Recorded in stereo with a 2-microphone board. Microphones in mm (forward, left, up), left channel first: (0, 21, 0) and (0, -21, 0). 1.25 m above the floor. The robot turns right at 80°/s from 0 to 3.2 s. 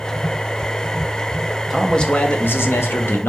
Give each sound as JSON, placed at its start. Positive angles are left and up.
{"t": 1.7, "sound": "a man speaking", "azimuth_deg": -5, "distance_m": 0.6}